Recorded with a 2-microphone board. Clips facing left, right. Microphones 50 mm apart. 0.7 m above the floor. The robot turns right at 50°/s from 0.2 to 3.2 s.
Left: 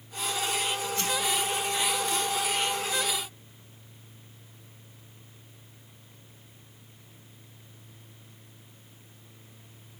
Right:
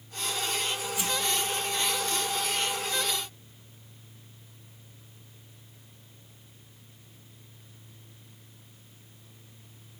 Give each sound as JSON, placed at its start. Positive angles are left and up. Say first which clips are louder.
{"t": 1.0, "sound": "a whoosh", "louder": "even", "side_deg": -15, "distance_m": 2.0}